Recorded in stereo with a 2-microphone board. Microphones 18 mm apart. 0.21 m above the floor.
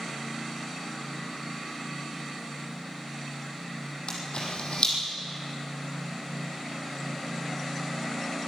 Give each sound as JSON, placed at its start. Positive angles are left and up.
{"t": 4.1, "sound": "a camera shutter", "side_deg": 65, "distance_m": 6.5}